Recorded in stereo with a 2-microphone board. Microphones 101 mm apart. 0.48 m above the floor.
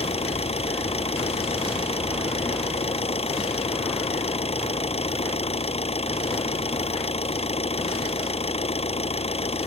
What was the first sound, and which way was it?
An engine running, 80° left.